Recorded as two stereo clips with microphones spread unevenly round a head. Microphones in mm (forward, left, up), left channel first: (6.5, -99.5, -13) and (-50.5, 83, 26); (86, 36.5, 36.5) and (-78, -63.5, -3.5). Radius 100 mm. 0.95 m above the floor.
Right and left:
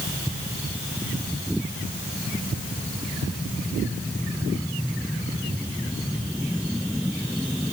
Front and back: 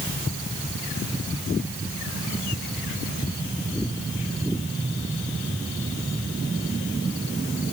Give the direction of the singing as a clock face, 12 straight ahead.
I don't hear singing.